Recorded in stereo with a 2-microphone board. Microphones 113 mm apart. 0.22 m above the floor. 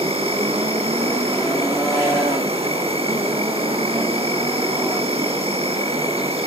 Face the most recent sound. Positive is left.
turn(degrees=-70)  # may be behind; listen again after turning